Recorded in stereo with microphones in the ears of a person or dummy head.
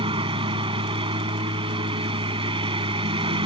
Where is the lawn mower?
30° right (ahead or behind).